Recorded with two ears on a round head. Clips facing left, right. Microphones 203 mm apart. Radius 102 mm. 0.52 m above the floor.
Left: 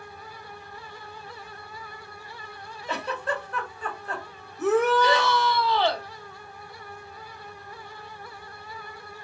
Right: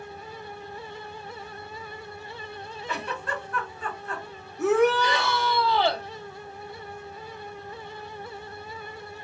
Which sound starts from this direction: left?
A giggle, at 2.9 s.